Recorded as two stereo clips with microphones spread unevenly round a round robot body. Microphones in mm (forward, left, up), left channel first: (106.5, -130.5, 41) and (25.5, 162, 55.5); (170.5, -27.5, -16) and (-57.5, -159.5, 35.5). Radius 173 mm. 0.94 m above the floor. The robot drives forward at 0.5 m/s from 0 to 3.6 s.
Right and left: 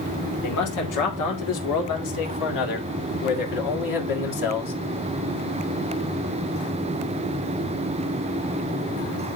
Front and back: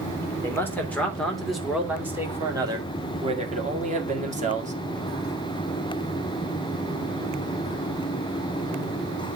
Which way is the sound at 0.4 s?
50° right.